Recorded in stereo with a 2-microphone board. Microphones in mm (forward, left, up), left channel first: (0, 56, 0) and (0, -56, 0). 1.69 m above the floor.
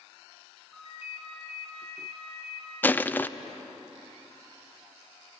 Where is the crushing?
20° left (ahead or behind), 0.6 m.